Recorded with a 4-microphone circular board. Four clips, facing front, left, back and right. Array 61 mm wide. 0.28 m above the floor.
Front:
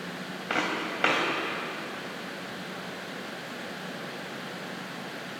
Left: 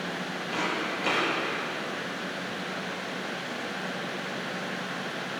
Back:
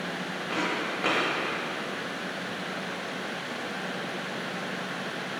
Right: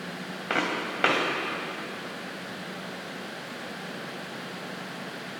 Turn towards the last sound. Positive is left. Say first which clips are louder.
# right 3 dB, front 1 dB
turn(degrees=-65)